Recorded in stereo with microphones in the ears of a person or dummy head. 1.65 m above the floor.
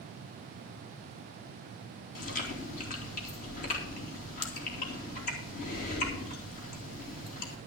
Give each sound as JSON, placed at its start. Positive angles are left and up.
{"t": 2.1, "sound": "chewing", "side_deg": 45, "distance_m": 2.5}